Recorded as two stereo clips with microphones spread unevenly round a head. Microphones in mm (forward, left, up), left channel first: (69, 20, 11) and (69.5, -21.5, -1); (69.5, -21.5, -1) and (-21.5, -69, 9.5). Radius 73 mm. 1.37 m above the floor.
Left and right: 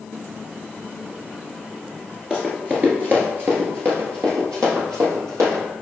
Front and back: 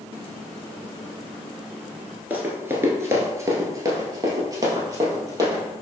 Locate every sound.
2.3 s running footsteps: 170° right, 1.4 m; by 5.6 s 105° right, 2.5 m